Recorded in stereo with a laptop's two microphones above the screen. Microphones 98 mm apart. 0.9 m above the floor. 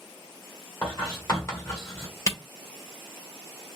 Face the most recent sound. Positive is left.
turn(degrees=35)  # may be behind; listen again after turning